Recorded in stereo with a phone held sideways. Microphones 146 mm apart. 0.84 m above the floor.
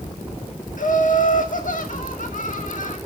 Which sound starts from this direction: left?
Laughter, at 0.8 s.